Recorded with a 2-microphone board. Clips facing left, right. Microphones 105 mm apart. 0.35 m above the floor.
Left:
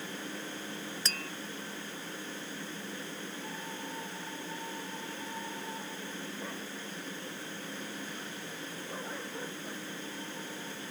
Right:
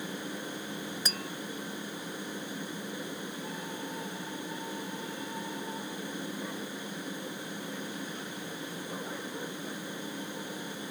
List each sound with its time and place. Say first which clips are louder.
1.1 s tapping: right 2 dB; 15° right (ahead or behind)